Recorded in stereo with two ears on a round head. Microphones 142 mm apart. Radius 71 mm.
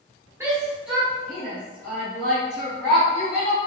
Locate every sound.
0.4 s a shout: 15° right (ahead or behind), 1.0 m; by 3.6 s 20° left (ahead or behind), 2.5 m